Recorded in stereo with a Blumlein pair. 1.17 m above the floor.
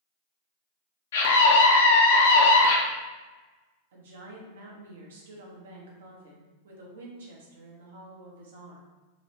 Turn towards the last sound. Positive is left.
turn(degrees=-60)